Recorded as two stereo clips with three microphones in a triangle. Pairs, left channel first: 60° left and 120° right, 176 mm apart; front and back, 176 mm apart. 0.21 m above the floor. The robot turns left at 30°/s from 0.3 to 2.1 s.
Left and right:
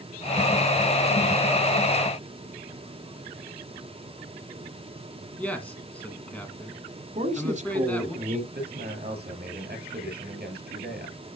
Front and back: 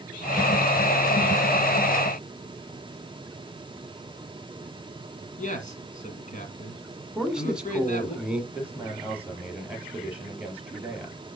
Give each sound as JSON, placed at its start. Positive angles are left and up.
{"t": 5.4, "sound": "a man speaking", "azimuth_deg": -20, "distance_m": 1.8}
{"t": 7.2, "sound": "a man speaking", "azimuth_deg": -95, "distance_m": 1.5}
{"t": 8.5, "sound": "a man speaking", "azimuth_deg": -100, "distance_m": 4.5}